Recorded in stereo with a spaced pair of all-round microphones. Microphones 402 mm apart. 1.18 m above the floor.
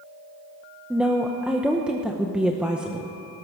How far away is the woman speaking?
About 0.7 m.